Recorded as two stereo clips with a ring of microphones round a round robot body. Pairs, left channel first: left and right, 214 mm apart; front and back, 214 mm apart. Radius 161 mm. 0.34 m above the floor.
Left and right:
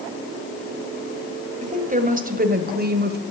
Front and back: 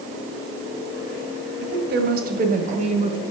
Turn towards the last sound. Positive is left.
turn(degrees=-115)